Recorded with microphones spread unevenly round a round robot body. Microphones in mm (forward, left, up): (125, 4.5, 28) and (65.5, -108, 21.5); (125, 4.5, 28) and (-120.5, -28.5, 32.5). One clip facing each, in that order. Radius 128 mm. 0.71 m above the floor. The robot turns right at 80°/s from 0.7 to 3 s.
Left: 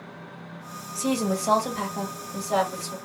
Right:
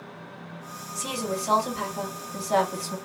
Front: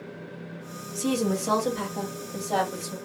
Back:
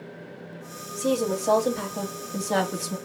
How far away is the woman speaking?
About 1.3 m.